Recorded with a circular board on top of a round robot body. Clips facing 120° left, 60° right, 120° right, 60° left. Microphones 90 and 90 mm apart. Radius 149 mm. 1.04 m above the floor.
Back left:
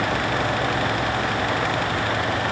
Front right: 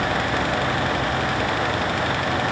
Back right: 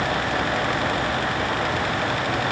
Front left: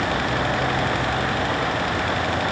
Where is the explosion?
No explosion in this recording.